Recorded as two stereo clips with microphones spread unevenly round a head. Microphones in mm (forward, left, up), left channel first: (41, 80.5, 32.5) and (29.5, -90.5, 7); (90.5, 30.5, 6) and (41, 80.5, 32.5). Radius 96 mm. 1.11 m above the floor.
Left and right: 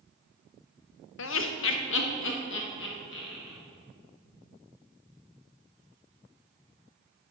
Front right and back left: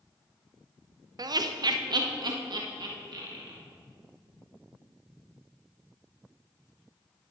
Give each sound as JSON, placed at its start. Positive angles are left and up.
{"t": 1.2, "sound": "laughter", "azimuth_deg": 100, "distance_m": 0.6}